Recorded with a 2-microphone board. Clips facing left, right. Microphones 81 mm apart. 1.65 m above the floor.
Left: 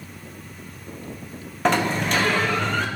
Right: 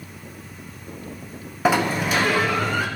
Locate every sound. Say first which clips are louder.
1.6 s a sliding door: right 1 dB; 5° right (ahead or behind), 0.9 m